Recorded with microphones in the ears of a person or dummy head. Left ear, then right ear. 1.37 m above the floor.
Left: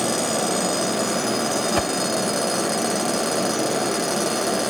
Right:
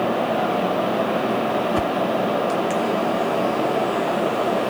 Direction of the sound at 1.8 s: 25° left (ahead or behind).